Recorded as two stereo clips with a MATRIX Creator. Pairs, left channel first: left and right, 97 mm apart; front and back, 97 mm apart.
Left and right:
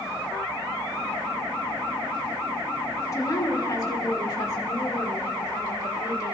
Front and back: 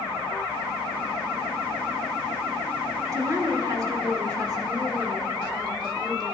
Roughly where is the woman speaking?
Behind left.